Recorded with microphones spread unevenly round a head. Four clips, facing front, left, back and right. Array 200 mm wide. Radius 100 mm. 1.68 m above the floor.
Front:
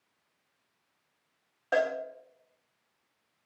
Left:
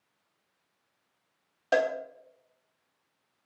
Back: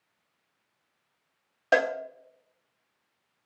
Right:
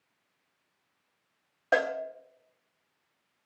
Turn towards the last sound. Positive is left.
turn(degrees=175)